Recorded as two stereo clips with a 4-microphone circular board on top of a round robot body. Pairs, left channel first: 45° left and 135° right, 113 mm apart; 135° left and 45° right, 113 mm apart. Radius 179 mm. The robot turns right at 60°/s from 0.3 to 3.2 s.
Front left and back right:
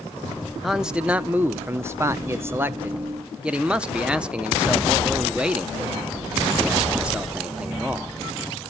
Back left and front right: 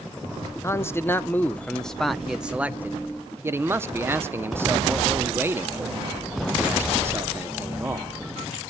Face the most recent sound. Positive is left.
turn(degrees=-70)